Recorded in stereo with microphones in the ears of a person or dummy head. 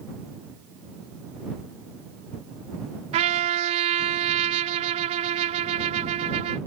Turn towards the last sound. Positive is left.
turn(degrees=-35)  # may be behind; listen again after turning